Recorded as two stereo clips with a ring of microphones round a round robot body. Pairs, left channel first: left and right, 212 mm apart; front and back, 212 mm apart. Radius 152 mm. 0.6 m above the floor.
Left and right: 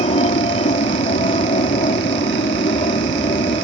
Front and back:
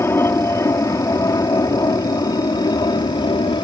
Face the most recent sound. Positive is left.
turn(degrees=45)